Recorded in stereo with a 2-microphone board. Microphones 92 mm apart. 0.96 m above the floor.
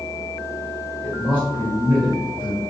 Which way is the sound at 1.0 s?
55° left (ahead or behind).